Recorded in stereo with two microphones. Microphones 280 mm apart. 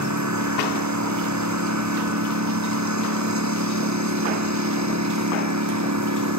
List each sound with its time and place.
0.0 s a lawn mower: 80° right; by 6.4 s 75° right (ahead or behind)